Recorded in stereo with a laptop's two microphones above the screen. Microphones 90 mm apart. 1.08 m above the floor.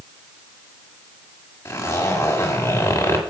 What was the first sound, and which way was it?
A zipper, 35° left (ahead or behind).